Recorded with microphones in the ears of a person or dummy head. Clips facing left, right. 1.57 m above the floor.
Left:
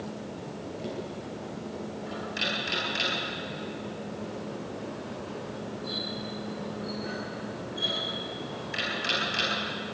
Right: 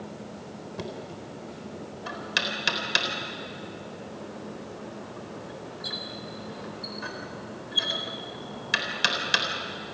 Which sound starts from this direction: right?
Knocking, at 0.8 s.